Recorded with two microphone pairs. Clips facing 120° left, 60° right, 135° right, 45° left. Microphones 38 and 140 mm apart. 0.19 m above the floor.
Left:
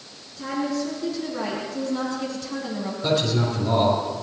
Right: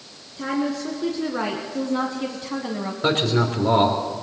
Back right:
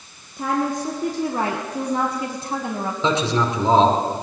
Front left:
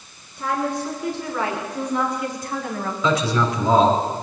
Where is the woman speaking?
100° right, 2 m; by 2.9 s 90° right, 1.1 m.